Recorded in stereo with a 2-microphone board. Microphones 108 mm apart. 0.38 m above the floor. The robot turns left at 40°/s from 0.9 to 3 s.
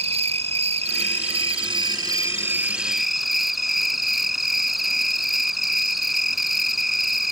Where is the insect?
95° right; by 7.3 s straight behind.